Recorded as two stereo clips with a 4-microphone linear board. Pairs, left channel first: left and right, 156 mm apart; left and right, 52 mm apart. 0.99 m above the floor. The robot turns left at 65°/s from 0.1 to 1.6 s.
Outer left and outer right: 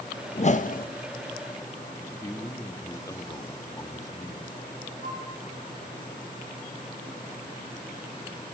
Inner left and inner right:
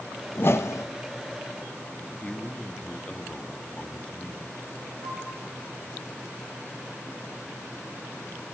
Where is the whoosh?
135° left, 0.8 m; by 0.9 s 100° left, 0.8 m.